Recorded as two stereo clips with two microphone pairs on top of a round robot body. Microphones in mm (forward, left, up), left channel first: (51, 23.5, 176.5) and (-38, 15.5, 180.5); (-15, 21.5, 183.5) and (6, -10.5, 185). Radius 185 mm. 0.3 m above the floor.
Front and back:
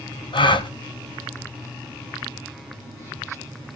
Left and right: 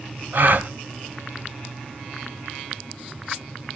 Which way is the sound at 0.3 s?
20° right.